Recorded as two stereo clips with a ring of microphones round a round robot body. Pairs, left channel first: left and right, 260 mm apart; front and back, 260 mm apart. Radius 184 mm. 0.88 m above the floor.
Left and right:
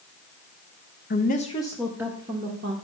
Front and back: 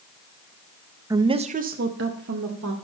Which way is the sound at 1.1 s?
105° left.